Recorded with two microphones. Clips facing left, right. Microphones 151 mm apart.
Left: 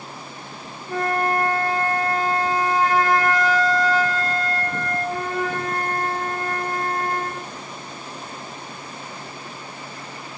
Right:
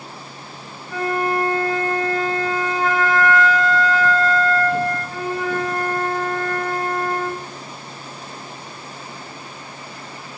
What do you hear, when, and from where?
0.9 s a flute: 40° left (ahead or behind), 0.5 m